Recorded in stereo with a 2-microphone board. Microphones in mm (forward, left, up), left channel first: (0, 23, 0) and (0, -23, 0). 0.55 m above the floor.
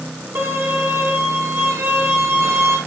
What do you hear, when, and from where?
0.3 s a violin: 65° right (ahead or behind), 5.5 m